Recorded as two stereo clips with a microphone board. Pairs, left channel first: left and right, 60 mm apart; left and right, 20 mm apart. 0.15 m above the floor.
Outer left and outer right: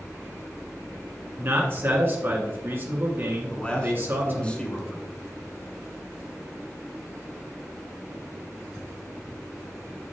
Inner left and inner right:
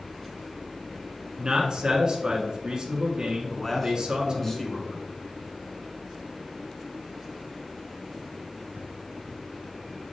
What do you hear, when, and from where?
1.4 s a man speaking: 40° right (ahead or behind), 1.6 m
3.5 s a man speaking: 20° left (ahead or behind), 1.4 m